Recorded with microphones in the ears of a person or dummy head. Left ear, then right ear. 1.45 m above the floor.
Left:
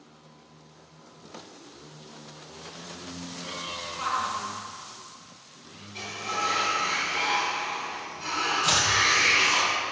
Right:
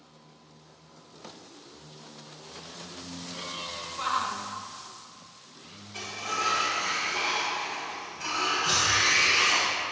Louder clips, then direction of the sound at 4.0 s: Even; 10° right (ahead or behind).